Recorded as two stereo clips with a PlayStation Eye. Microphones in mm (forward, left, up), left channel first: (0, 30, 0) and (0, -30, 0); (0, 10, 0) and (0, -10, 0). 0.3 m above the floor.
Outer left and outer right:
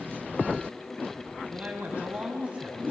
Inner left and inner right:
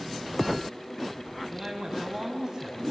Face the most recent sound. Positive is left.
turn(degrees=-20)  # may be behind; listen again after turning